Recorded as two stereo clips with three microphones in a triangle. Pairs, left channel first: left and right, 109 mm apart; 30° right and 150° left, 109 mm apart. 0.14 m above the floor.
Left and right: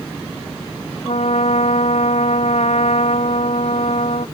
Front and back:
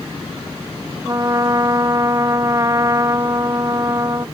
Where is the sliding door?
No sliding door in this recording.